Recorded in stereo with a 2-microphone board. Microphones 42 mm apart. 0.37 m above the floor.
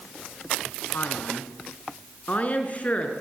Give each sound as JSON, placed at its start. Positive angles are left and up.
{"t": 0.9, "sound": "a man speaking", "side_deg": 45, "distance_m": 3.5}